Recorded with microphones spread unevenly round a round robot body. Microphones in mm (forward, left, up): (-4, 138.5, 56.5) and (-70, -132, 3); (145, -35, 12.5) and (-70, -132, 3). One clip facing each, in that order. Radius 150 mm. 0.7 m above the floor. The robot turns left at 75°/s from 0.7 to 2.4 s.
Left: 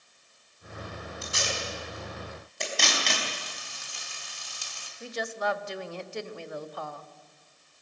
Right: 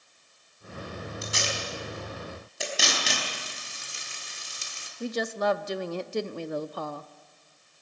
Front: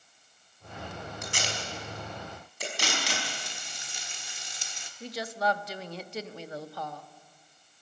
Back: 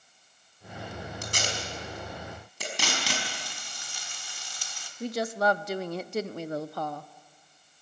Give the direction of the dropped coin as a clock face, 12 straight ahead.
No dropped coin in this recording.